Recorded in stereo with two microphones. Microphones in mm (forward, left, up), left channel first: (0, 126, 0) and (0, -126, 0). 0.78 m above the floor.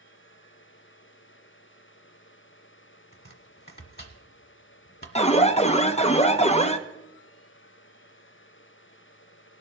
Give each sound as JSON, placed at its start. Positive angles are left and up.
{"t": 3.1, "sound": "chopping", "side_deg": 40, "distance_m": 1.5}
{"t": 5.2, "sound": "an alarm", "side_deg": 25, "distance_m": 0.6}